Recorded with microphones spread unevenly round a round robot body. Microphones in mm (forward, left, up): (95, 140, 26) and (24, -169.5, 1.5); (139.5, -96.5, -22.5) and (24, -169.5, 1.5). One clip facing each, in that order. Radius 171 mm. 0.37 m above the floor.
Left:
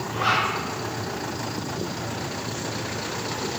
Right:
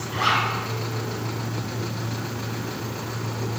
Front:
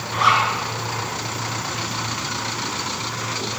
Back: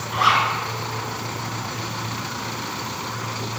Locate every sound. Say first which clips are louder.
0.1 s a zipper: right 1 dB, front 1 dB; 60° right, 4 m